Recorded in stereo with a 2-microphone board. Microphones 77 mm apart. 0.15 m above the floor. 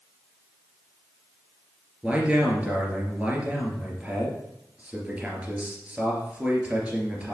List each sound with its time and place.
2.0 s a man speaking: 15° right (ahead or behind), 3 m